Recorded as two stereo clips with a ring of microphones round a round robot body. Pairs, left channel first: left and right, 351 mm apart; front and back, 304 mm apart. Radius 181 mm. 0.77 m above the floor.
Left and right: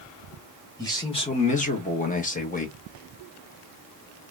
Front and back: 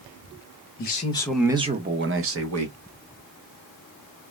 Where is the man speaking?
15° left, 0.8 m; by 2.8 s 155° left, 1.4 m.